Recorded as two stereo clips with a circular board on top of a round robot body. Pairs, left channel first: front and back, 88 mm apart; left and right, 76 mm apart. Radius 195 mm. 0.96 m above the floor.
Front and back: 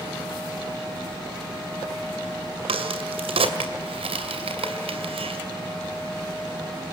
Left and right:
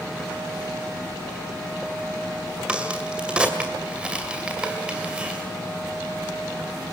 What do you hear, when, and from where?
2.7 s a crack: 165° right, 2 m